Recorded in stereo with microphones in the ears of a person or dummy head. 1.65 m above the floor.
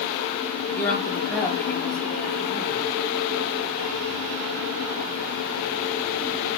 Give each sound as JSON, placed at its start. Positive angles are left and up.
{"t": 0.7, "sound": "a woman speaking", "side_deg": 10, "distance_m": 2.0}